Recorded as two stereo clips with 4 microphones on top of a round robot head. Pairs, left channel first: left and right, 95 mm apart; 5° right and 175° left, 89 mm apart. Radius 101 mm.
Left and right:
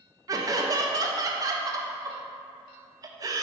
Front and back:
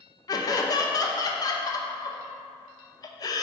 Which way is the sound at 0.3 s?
45° right.